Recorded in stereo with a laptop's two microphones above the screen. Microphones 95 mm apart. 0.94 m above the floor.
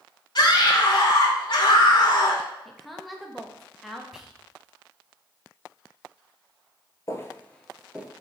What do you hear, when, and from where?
0.3 s a scream: 55° left (ahead or behind), 2.5 m
2.6 s a woman speaking: centre (ahead or behind), 0.8 m
4.1 s whispering: 5° right (ahead or behind), 0.8 m
7.1 s footsteps: 35° left (ahead or behind), 1.1 m; by 8.1 s 20° right (ahead or behind), 1.1 m